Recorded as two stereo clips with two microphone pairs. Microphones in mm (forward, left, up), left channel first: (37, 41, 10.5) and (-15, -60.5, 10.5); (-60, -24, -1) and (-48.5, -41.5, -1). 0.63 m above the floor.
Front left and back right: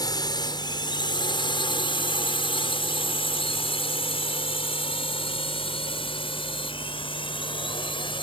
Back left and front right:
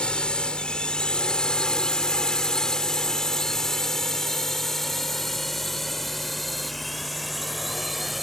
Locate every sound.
0.0 s a drone: 105° left; by 8.2 s 25° left